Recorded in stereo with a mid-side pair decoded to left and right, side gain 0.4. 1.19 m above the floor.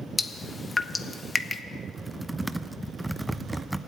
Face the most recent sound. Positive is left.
turn(degrees=-5)